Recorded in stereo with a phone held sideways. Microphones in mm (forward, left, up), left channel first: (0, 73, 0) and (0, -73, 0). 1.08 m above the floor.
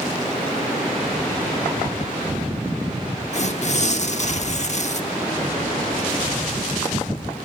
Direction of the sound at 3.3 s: 50° left (ahead or behind).